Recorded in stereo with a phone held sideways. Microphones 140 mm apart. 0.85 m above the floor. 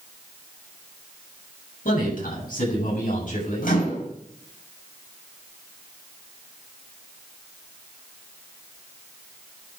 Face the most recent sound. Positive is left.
turn(degrees=70)  # may be behind; listen again after turning